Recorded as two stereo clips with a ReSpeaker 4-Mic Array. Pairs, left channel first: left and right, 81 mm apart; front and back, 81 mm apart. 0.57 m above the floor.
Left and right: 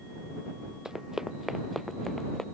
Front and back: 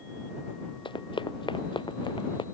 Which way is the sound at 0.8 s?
5° right.